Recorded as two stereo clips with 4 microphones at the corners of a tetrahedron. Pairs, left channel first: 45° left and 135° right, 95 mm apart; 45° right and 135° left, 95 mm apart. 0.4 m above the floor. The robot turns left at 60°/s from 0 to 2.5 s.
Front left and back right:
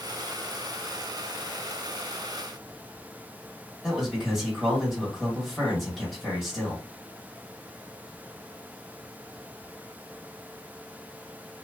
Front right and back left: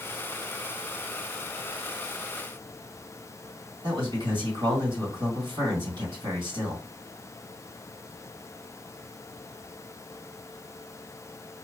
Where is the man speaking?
135° left, 1.9 m.